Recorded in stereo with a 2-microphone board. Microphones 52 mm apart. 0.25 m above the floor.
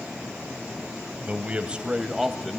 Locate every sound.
1.2 s a man speaking: 30° right (ahead or behind), 1.2 m; by 2.6 s 5° left (ahead or behind), 1.1 m